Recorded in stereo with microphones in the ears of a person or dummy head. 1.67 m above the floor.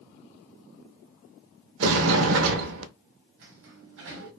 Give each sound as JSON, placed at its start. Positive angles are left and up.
{"t": 1.8, "sound": "a sliding door", "side_deg": -70, "distance_m": 0.6}
{"t": 3.4, "sound": "a sliding door", "side_deg": -65, "distance_m": 0.8}